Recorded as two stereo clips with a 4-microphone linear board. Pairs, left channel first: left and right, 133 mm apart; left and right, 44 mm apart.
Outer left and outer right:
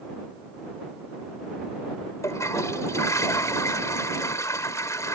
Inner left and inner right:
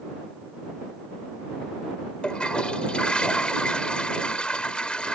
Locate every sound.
2.2 s a toilet flushing: 25° left (ahead or behind)